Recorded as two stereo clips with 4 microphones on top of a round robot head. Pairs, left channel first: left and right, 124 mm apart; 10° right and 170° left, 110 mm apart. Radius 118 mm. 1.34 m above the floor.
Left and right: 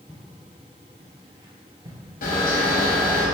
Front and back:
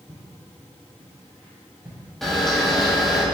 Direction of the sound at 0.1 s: 155° left.